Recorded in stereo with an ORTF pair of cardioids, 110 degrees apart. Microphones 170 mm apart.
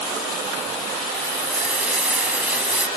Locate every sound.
1.1 s frying: 5° right